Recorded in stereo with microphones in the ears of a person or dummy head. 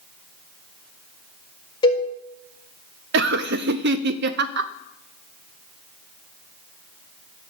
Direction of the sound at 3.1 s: 65° right (ahead or behind).